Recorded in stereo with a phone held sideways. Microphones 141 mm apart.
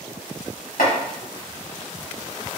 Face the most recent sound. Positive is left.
turn(degrees=80)